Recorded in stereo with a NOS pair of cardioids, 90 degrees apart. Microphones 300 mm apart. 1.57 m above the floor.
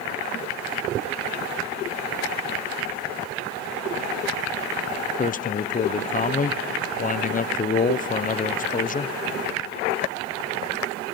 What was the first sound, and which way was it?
A man speaking, 25° left.